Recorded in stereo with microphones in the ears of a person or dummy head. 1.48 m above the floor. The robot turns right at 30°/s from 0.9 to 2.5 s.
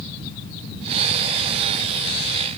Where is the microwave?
I don't hear a microwave.